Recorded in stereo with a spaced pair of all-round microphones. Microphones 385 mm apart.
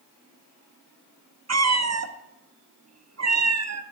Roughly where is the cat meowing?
Right.